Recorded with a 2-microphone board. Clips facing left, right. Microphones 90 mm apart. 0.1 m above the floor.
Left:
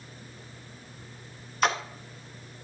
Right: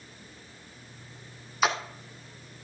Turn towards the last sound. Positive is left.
turn(degrees=-5)  # may be behind; listen again after turning